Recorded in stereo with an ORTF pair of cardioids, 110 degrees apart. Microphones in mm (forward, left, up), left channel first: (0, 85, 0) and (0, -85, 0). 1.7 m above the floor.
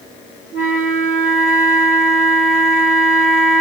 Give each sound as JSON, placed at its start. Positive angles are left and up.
{"t": 0.5, "sound": "a flute", "azimuth_deg": -60, "distance_m": 2.5}